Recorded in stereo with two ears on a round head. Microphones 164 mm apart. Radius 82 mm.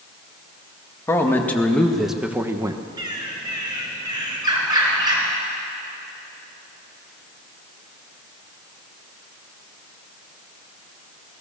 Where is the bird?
25° right (ahead or behind), 4.5 m.